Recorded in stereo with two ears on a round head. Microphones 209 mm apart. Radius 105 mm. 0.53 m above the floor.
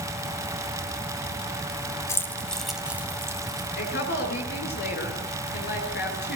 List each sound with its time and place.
2.1 s keys jangling: 15° left (ahead or behind), 2 m; by 3.7 s 20° right (ahead or behind), 2.5 m
3.8 s a woman speaking: 45° left (ahead or behind), 8 m